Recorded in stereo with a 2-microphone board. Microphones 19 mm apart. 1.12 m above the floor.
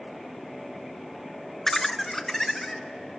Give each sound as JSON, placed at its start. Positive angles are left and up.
{"t": 1.7, "sound": "laughter", "side_deg": 20, "distance_m": 0.8}